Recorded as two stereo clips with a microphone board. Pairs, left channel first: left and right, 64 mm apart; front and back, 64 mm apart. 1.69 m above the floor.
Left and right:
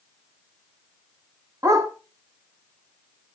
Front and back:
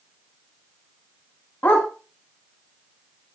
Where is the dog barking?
60° right, 3.5 m.